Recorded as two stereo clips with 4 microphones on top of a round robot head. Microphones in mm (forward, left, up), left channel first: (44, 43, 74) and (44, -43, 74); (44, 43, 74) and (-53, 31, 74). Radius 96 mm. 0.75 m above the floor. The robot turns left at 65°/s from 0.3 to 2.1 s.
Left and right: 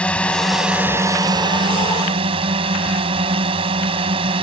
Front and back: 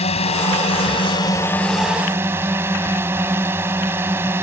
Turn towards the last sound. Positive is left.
turn(degrees=-100)